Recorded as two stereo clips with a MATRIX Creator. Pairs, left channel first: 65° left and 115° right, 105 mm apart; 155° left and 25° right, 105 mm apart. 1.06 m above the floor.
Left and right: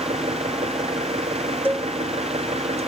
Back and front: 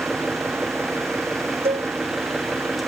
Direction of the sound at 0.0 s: 110° right.